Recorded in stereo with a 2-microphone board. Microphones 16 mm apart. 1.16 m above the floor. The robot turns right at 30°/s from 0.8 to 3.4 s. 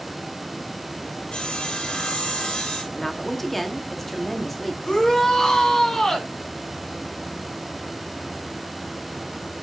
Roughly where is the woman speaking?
Left.